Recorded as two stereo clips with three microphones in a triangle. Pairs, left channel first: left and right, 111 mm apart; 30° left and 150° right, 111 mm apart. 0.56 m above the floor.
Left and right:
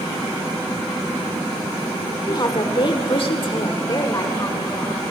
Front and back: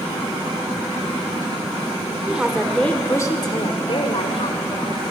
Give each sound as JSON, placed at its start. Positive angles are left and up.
{"t": 2.3, "sound": "a woman speaking", "azimuth_deg": 135, "distance_m": 1.9}